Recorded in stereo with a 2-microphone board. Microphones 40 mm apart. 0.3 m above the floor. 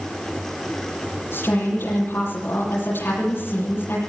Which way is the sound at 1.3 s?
65° left (ahead or behind).